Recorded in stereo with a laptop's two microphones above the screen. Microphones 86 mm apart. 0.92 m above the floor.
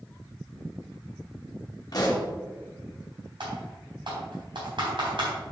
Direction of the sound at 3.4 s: 65° right (ahead or behind).